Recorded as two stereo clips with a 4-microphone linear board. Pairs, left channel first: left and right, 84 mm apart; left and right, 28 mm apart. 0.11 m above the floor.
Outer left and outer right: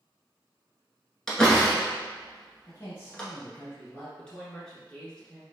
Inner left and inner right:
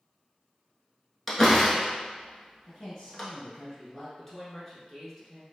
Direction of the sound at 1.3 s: 5° left (ahead or behind).